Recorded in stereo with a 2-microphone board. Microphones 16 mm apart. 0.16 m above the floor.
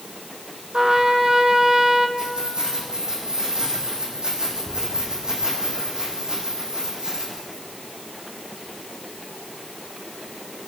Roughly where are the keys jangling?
Right.